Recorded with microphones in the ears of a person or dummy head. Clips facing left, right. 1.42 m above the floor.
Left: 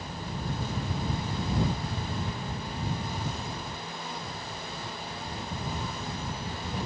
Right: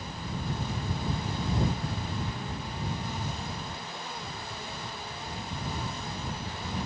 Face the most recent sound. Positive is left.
No sound to turn to.